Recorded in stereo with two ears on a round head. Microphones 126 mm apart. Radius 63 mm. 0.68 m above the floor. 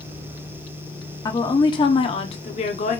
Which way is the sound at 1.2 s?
25° left (ahead or behind).